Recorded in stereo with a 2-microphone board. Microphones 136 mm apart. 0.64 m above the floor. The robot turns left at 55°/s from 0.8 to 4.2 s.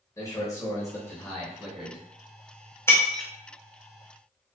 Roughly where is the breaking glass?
Centre.